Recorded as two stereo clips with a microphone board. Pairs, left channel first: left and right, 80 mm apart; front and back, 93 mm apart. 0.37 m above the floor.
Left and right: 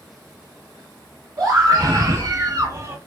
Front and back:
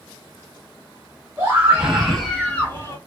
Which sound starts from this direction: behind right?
A scream, at 1.4 s.